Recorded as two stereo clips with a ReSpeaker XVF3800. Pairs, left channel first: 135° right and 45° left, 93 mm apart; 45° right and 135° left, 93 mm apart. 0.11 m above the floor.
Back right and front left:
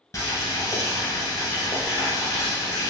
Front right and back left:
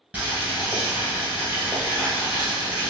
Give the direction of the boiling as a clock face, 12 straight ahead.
5 o'clock.